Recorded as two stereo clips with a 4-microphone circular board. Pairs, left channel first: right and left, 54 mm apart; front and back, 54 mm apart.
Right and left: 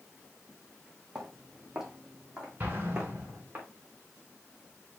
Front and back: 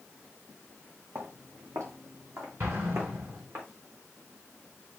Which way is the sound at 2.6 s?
150° left.